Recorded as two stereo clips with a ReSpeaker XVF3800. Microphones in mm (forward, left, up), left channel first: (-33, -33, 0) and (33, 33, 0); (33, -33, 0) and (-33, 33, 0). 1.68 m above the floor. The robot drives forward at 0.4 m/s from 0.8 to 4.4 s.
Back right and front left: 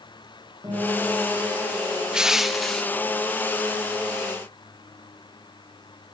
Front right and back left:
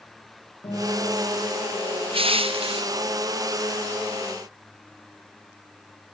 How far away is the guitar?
About 9.5 m.